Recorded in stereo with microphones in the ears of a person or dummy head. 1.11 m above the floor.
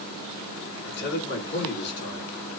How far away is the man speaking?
About 2 m.